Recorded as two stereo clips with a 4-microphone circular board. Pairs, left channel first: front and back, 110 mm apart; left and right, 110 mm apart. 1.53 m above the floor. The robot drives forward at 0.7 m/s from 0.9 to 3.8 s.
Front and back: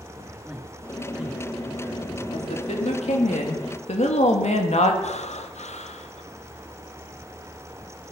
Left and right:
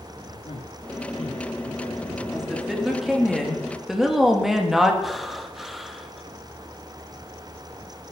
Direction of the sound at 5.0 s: Straight ahead.